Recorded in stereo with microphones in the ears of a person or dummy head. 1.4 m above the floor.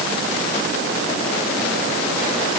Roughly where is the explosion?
I don't hear an explosion.